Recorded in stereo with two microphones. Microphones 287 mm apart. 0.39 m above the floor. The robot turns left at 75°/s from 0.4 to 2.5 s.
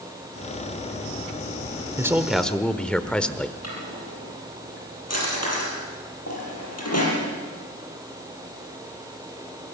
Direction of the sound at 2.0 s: 10° right (ahead or behind).